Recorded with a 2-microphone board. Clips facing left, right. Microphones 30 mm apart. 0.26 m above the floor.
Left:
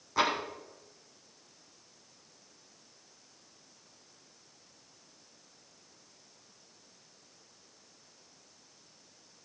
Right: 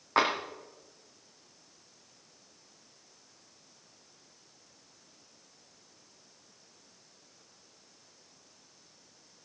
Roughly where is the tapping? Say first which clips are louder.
Right 2 dB; right.